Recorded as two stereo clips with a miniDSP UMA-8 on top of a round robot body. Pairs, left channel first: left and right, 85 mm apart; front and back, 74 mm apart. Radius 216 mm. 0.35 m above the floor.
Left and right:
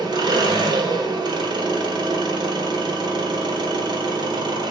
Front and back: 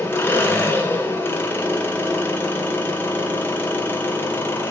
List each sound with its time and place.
0.0 s an engine running: 65° right, 1.9 m